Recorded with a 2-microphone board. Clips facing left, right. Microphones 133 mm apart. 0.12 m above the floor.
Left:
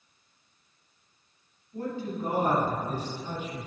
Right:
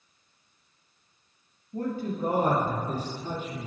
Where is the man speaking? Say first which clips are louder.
Right 2 dB; 50° right (ahead or behind), 3 m; by 3.7 s 35° right (ahead or behind), 4.5 m.